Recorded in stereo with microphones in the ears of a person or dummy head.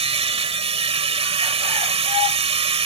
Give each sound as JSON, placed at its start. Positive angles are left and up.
{"t": 0.0, "sound": "a machine running", "side_deg": -35}